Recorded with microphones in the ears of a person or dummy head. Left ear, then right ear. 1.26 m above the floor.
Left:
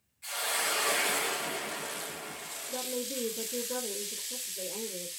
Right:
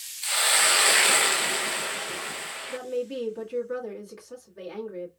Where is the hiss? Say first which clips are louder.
Right 10 dB; 50° right (ahead or behind), 0.7 m.